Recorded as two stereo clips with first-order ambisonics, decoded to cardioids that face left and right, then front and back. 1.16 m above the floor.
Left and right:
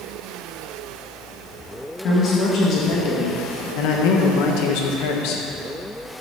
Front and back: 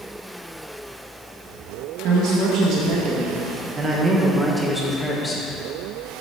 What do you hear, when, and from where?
2.0 s a man speaking: 145° left, 1.7 m; by 5.4 s 70° left, 1.2 m